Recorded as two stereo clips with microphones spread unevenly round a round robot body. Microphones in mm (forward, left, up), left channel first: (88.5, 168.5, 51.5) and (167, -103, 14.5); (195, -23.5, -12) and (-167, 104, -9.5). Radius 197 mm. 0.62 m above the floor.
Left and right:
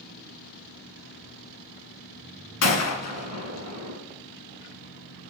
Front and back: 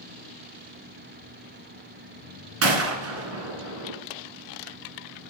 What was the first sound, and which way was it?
A gunshot, 110° left.